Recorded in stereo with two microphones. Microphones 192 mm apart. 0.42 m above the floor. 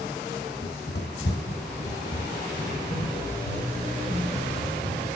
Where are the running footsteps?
55° left (ahead or behind), 0.8 m; by 5.2 s 40° left (ahead or behind), 4.5 m.